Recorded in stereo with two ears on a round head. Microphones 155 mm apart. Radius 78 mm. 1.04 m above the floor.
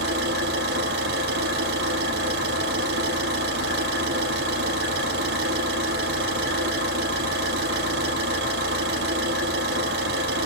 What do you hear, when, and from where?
0.0 s an engine running: 65° right (ahead or behind), 7 m